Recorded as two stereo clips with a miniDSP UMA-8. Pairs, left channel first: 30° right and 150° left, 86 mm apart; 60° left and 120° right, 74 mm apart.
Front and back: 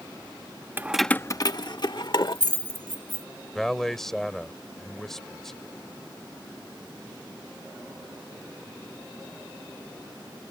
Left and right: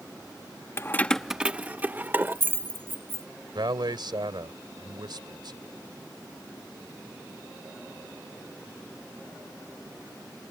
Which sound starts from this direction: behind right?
A man speaking, at 3.5 s.